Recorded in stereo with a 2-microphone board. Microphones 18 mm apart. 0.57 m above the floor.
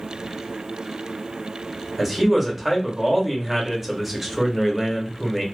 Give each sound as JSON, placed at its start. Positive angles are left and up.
{"t": 2.0, "sound": "a man speaking", "side_deg": -5, "distance_m": 0.8}